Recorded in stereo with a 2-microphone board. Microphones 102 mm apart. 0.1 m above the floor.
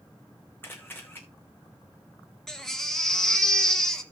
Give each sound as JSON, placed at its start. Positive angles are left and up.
{"t": 0.6, "sound": "a camera shutter", "side_deg": 20, "distance_m": 2.0}
{"t": 2.5, "sound": "a baby crying", "side_deg": 5, "distance_m": 1.2}